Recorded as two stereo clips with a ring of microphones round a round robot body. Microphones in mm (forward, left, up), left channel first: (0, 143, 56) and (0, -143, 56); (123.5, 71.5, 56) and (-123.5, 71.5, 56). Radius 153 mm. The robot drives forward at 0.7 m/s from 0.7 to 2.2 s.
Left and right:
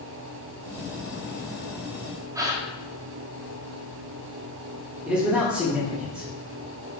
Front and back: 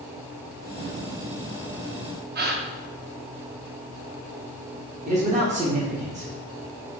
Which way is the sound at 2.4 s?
165° right.